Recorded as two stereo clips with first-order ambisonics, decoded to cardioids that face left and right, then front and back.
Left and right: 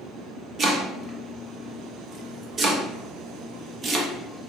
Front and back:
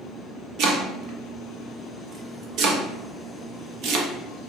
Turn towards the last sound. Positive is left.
turn(degrees=-150)